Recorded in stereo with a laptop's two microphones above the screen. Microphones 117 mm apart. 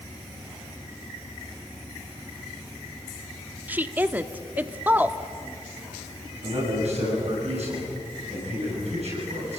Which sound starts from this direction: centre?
A woman speaking, at 3.7 s.